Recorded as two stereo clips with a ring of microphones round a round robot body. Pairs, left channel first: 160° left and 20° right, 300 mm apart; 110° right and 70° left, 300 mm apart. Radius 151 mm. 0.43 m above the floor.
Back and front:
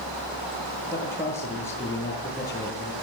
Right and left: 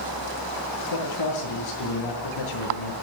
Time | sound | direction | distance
0.9 | a man speaking | 120° right | 8 m